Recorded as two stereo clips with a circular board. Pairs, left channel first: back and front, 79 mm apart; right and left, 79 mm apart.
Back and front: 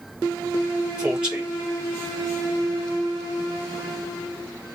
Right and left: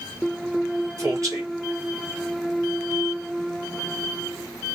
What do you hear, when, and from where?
1.0 s a man speaking: 70° left, 2 m